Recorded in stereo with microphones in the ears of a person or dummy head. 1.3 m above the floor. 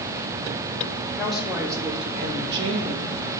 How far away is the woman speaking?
About 1.9 m.